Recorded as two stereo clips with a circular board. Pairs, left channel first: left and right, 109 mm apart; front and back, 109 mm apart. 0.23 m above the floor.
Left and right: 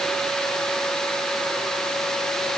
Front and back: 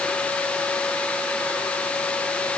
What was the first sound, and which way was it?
Only background noise.